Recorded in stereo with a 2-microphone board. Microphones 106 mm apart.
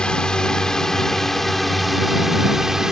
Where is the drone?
10° left (ahead or behind); by 2.9 s 5° right (ahead or behind).